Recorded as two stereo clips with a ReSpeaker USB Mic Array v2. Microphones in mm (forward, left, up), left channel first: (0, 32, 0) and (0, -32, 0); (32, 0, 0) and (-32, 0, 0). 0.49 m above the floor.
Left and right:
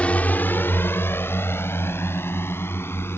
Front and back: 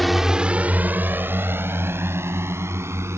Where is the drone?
85° left; by 3.2 s 140° left.